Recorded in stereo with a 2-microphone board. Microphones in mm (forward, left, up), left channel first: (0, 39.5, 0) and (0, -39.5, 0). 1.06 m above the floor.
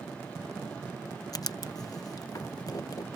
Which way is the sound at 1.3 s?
50° left (ahead or behind).